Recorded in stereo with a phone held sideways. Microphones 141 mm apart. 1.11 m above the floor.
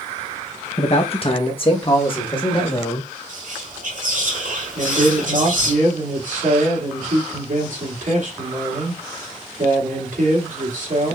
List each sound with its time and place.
0.8 s a man speaking: 45° left (ahead or behind), 0.7 m; by 3.1 s 35° left (ahead or behind), 1.8 m
3.3 s whispering: 70° right (ahead or behind), 2.5 m
4.8 s a man speaking: 65° right (ahead or behind), 2.5 m